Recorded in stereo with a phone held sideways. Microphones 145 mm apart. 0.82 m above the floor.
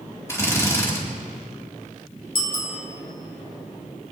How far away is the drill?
About 2.5 m.